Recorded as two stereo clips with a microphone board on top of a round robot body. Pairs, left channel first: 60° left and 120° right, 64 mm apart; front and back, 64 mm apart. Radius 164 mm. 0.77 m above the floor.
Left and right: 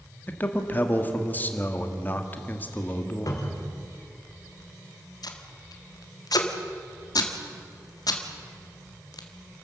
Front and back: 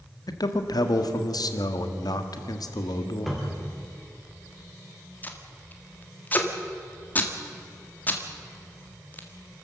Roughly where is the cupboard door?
Left.